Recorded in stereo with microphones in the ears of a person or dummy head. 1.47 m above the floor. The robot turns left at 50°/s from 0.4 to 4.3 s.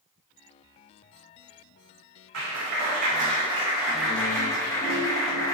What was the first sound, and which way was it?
A clap, 100° right.